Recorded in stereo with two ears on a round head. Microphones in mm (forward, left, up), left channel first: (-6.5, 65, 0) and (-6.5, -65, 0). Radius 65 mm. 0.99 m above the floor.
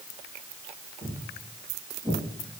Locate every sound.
1.0 s footsteps: 5° right (ahead or behind), 5 m; by 2.2 s 15° right (ahead or behind), 4.5 m